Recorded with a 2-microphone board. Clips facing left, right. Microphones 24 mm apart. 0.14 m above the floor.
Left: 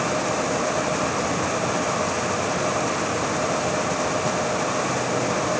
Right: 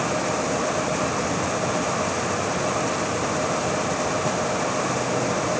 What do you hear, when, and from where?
Only background noise.